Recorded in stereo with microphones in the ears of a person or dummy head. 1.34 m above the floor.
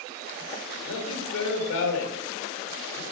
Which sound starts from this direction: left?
A man speaking, at 0.7 s.